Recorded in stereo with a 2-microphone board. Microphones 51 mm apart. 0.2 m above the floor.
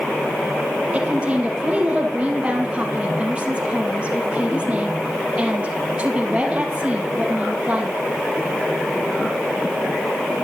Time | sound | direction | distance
0.9 | a woman speaking | 25° right (ahead or behind) | 4.5 m